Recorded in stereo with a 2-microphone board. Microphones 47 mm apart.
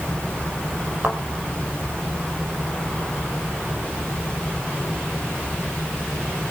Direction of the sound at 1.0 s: 30° right (ahead or behind).